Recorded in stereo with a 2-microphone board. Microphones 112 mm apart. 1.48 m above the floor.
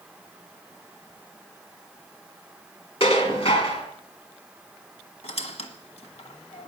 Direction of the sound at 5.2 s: 60° left (ahead or behind).